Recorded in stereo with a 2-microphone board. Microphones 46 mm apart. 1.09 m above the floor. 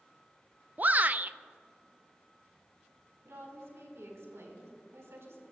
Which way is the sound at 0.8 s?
40° right (ahead or behind).